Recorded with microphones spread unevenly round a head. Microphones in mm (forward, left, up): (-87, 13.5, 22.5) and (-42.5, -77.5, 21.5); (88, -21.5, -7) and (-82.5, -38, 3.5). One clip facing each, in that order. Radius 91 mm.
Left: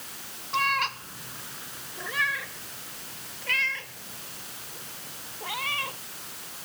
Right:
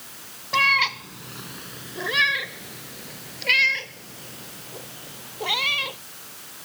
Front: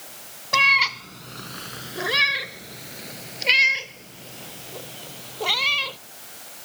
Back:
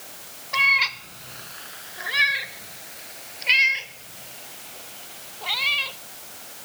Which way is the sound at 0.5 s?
20° right.